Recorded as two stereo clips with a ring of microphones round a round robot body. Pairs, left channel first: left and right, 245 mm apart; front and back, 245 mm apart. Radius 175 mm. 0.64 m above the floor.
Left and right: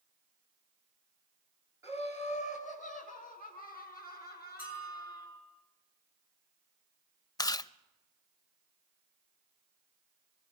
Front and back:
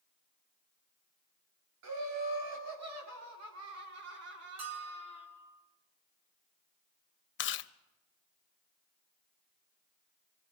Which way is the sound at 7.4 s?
15° left.